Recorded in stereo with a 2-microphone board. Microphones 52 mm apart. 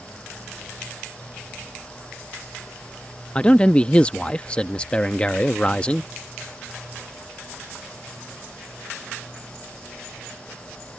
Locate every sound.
3.4 s a man speaking: 20° left (ahead or behind)